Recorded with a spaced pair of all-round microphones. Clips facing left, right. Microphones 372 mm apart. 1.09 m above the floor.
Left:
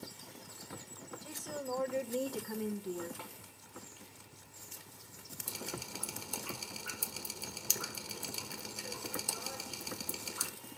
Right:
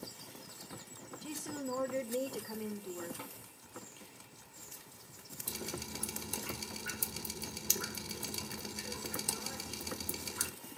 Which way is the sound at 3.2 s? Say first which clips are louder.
Right 2 dB; 25° right (ahead or behind).